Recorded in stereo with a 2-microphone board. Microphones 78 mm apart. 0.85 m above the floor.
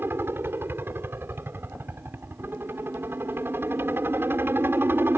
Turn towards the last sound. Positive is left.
turn(degrees=-30)  # may be behind; listen again after turning